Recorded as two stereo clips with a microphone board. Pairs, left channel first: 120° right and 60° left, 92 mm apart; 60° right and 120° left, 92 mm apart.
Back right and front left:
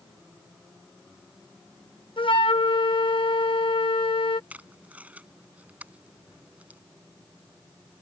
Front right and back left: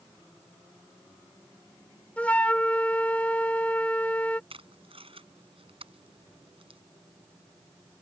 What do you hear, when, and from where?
2.2 s a flute: 135° right
4.5 s tape being pulled: 135° left